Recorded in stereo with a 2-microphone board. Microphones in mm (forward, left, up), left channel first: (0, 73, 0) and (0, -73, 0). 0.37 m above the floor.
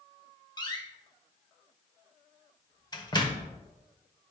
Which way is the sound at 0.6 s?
30° left (ahead or behind).